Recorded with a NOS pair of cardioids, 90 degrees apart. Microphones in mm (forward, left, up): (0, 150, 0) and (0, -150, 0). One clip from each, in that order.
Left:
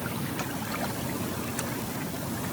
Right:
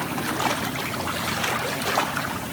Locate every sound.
Only background noise.